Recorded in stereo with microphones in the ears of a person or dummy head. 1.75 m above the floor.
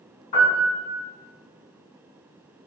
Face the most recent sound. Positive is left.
turn(degrees=25)  # may be behind; listen again after turning